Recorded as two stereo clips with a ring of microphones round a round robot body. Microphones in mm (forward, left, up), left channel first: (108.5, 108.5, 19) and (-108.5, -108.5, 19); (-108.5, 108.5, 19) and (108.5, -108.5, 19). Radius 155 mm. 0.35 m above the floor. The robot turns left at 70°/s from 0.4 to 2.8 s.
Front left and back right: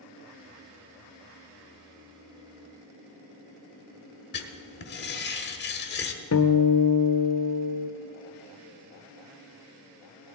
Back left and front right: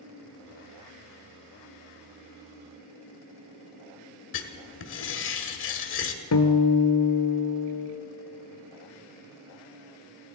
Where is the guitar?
90° left, 1.0 m.